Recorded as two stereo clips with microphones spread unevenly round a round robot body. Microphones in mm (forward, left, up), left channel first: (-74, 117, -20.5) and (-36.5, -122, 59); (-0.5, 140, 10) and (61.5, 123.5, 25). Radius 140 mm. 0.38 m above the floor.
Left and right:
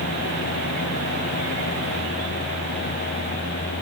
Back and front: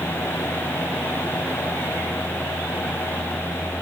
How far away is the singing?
No singing in this recording.